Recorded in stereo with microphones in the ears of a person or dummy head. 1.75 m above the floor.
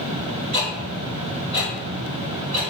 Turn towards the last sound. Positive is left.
turn(degrees=-40)  # may be behind; listen again after turning